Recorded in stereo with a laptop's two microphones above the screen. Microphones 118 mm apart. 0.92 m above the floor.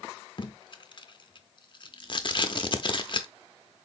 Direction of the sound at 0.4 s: 40° left (ahead or behind).